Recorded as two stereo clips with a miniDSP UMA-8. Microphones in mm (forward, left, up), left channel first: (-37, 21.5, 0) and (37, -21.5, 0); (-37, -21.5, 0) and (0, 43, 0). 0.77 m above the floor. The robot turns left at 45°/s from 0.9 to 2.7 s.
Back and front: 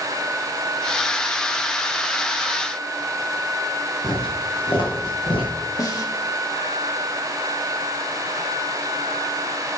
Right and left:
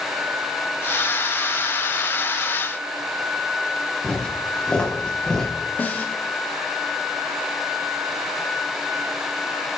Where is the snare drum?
175° right, 1.7 m.